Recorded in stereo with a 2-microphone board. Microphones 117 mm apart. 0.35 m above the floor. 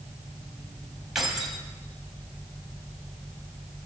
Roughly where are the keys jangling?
Centre.